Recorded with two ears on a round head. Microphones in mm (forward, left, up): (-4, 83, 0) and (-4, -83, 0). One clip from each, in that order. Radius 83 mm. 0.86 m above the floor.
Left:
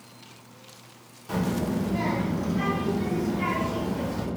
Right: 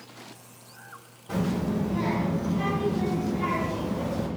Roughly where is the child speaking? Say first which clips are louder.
Left 1 dB; left.